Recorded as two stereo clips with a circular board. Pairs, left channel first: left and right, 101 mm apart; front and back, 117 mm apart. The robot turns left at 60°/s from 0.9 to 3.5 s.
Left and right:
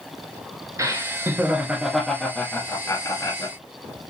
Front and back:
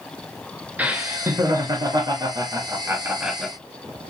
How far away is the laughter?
About 1.2 m.